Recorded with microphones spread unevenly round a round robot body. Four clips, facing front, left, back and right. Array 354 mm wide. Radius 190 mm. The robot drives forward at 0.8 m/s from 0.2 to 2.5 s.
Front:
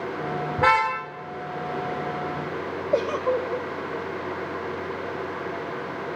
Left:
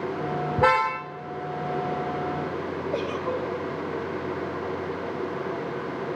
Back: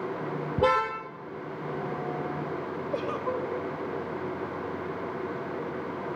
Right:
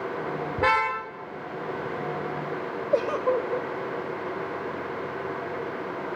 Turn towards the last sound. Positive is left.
turn(degrees=-45)